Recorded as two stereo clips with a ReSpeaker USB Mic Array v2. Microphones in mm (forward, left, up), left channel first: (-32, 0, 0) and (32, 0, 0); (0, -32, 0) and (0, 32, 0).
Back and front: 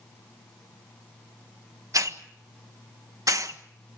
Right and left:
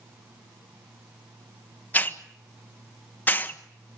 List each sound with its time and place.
1.9 s a hiss: 30° right, 1.3 m